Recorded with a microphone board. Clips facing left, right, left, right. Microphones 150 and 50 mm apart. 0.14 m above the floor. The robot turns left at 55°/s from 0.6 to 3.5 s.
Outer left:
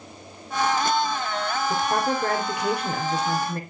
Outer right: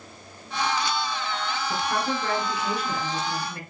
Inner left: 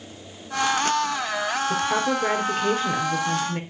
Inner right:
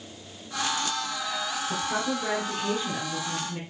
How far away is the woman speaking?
About 2.5 m.